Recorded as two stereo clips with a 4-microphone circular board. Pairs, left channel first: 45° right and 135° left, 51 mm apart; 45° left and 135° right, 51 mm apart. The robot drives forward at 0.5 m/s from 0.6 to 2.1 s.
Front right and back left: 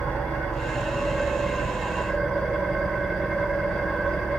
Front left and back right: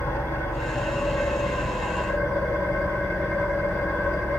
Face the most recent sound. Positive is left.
turn(degrees=45)